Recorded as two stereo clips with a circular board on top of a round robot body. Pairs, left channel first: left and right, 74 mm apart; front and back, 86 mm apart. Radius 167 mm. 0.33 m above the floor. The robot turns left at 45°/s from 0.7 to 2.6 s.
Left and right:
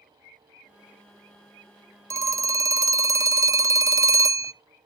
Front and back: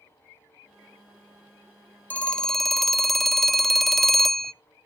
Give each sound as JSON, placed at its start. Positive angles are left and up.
{"t": 2.1, "sound": "a phone ringing", "azimuth_deg": -65, "distance_m": 0.5}